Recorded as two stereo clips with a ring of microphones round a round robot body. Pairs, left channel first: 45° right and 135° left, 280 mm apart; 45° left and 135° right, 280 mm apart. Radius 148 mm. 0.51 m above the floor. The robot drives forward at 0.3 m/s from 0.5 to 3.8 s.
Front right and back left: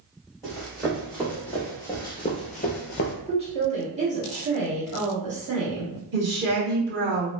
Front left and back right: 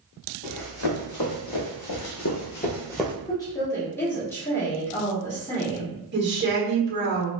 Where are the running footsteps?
45° left, 1.8 m; by 3.1 s 60° right, 0.5 m.